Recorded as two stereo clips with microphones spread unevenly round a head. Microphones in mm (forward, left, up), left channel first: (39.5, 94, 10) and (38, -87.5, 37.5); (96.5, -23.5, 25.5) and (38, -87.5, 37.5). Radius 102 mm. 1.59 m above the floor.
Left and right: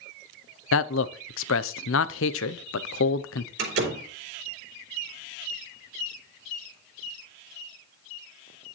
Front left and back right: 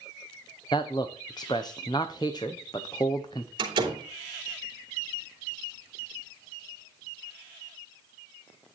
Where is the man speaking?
115° left, 0.6 m.